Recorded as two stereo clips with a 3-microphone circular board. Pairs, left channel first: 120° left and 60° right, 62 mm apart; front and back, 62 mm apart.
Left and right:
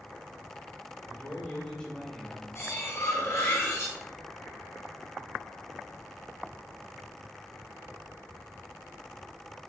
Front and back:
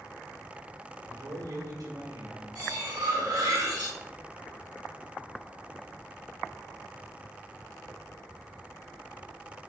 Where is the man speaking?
170° right, 3 m; by 2.5 s 155° right, 2.5 m.